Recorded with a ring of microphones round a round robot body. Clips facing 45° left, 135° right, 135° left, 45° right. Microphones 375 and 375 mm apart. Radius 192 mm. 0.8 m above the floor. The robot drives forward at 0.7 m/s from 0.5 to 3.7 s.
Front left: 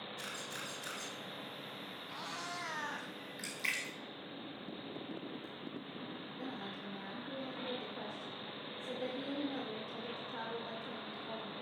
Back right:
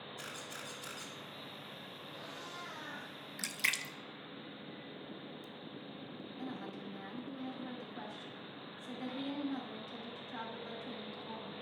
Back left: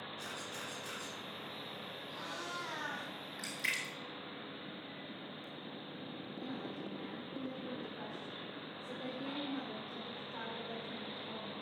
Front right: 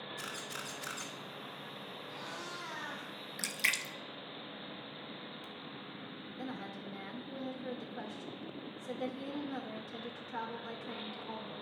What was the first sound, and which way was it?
A camera shutter, 50° right.